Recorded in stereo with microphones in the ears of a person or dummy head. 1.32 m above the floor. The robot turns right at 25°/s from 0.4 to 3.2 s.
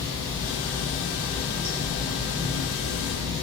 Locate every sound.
0.0 s running water: 155° left, 1.8 m; by 3.4 s 135° right, 1.8 m